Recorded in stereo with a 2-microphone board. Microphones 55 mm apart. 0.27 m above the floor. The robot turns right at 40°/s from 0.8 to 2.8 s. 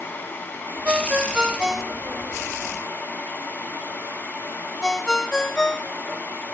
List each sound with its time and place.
0.8 s a ringtone: 25° right (ahead or behind); by 6.2 s 15° left (ahead or behind)